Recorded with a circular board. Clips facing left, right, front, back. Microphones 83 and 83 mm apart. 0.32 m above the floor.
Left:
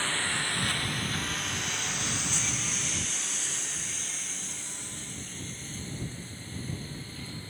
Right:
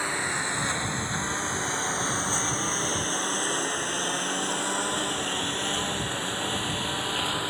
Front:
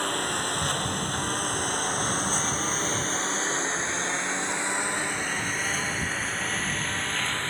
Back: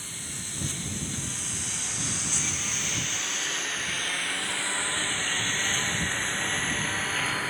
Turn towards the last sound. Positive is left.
turn(degrees=-95)